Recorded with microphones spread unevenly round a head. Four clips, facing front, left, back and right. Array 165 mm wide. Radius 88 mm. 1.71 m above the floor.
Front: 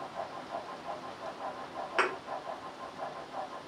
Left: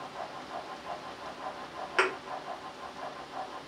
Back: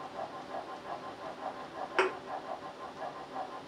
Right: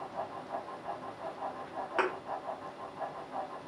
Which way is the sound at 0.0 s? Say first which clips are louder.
Right 1 dB, front 1 dB; 75° right.